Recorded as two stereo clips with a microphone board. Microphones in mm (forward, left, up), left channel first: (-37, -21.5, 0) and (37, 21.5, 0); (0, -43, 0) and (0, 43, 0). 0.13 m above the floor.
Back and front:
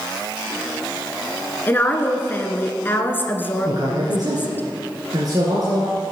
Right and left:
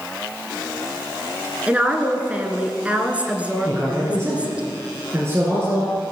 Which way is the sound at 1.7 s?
155° left.